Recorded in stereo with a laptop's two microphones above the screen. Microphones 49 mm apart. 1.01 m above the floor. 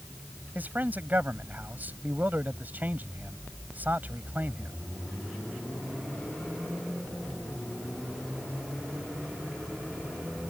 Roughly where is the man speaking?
Right.